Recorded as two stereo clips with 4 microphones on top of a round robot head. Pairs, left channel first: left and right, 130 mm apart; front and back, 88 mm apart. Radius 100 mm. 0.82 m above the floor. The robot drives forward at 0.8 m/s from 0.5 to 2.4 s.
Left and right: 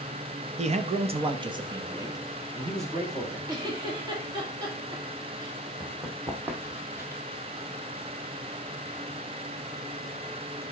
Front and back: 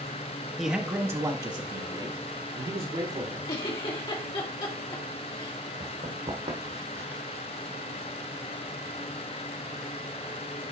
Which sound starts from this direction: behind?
Running footsteps, at 5.8 s.